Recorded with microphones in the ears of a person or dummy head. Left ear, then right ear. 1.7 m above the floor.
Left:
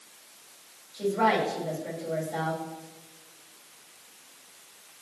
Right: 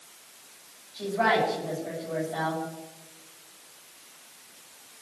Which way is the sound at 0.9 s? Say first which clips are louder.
Even; 35° left (ahead or behind).